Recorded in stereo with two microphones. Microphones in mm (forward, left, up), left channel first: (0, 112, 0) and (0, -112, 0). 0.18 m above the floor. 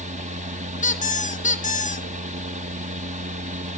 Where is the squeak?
35° left (ahead or behind), 1.2 m.